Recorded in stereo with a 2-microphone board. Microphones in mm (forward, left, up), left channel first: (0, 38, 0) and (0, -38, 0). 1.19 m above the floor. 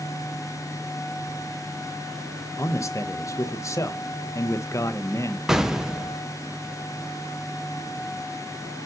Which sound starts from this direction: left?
A man speaking, at 2.6 s.